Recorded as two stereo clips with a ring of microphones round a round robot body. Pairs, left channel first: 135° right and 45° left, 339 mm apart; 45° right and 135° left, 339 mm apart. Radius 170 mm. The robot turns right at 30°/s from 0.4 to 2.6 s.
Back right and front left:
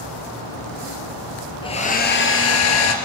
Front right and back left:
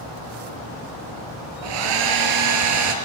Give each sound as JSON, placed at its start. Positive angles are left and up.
{"t": 1.6, "sound": "a hair dryer", "azimuth_deg": 150, "distance_m": 2.5}